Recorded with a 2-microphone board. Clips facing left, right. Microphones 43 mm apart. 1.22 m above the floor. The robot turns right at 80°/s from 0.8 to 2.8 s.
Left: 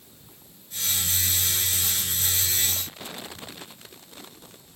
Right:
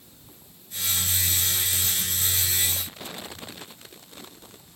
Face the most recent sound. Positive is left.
No sound to turn to.